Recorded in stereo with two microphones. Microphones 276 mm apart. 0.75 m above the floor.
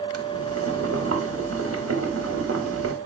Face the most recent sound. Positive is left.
turn(degrees=-55)  # may be behind; listen again after turning